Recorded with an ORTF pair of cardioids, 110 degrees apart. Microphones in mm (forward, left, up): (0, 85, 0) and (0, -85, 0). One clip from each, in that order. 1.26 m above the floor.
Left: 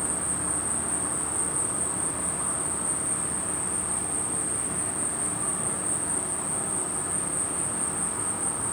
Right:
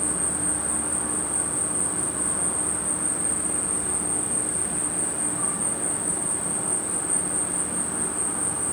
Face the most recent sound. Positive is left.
turn(degrees=-55)